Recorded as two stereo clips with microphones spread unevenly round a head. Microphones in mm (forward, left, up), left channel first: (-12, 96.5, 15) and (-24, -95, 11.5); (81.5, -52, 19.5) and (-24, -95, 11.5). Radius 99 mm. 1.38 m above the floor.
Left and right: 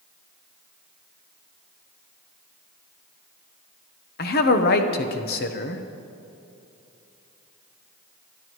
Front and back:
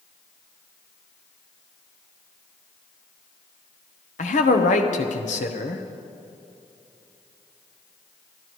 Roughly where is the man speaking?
Ahead left.